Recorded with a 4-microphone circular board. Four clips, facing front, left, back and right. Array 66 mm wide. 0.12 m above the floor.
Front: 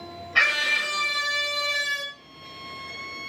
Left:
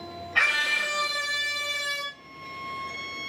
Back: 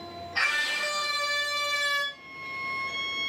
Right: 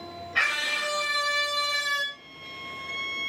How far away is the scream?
About 2 m.